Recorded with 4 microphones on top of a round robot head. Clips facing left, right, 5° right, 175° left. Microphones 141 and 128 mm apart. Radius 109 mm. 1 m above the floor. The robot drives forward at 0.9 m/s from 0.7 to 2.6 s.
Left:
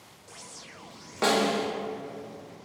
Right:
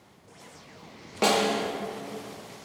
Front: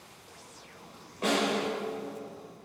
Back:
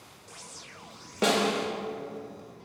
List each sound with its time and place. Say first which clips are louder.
1.2 s a snare drum: right 1 dB, back 2 dB; 160° right, 0.9 m; by 1.7 s 165° right, 1.3 m